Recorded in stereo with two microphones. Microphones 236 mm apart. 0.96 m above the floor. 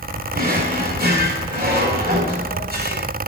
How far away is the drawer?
About 2.5 m.